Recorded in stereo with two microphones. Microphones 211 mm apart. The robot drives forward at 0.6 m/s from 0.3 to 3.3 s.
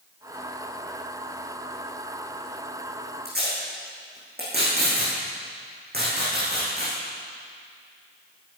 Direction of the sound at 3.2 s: 50° right (ahead or behind).